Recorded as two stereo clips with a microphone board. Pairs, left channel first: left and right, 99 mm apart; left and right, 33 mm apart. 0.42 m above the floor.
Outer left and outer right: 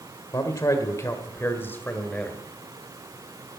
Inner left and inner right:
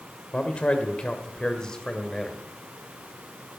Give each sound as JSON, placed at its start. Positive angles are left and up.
{"t": 0.3, "sound": "a man speaking", "side_deg": 40, "distance_m": 1.7}